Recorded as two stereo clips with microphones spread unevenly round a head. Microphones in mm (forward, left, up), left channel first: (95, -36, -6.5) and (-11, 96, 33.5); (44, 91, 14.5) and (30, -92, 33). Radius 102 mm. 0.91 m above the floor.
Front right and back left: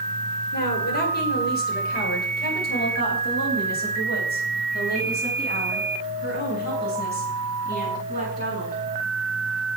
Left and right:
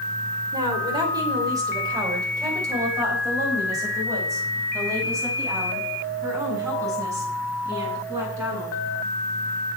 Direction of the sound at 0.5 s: 25° right.